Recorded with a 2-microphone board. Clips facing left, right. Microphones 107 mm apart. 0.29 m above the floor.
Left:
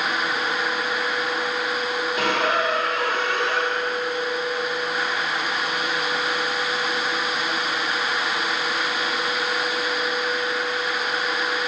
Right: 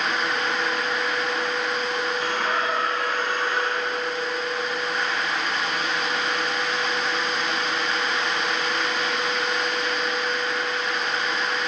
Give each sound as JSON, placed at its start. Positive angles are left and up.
{"t": 2.2, "sound": "a squeak", "side_deg": 80, "distance_m": 4.5}